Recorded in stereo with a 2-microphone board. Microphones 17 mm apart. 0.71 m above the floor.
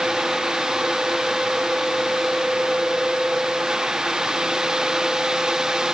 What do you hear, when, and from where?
Only background noise.